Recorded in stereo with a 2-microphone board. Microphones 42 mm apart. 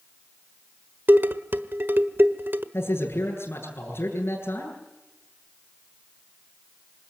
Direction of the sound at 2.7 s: 70° left (ahead or behind).